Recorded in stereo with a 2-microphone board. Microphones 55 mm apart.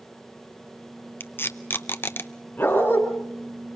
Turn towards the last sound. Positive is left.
turn(degrees=35)  # may be behind; listen again after turning